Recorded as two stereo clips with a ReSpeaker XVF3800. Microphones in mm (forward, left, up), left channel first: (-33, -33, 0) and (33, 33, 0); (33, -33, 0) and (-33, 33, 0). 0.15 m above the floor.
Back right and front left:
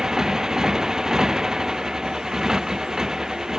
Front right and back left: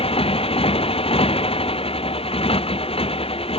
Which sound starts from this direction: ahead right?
A motorcycle, at 0.0 s.